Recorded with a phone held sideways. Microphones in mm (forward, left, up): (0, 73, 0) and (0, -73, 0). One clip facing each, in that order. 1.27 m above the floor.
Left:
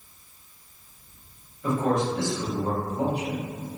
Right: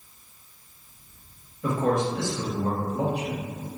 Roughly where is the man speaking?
Right.